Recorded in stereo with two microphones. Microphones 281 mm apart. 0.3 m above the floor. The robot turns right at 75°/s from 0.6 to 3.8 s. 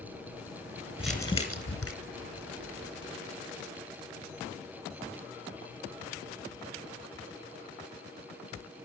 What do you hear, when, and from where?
1.0 s crumpling: 5° right, 3.5 m; by 1.9 s 65° left, 3.5 m